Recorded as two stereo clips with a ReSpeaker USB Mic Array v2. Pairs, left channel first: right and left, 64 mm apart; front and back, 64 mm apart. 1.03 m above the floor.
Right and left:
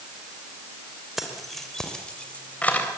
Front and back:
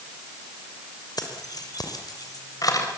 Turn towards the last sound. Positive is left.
turn(degrees=-25)